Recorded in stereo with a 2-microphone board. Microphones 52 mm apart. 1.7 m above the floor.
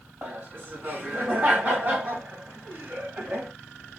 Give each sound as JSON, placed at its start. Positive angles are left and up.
{"t": 0.2, "sound": "laughter", "side_deg": -30, "distance_m": 2.5}